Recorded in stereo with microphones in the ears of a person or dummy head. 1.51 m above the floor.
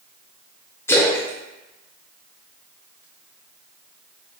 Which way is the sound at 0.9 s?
15° left (ahead or behind).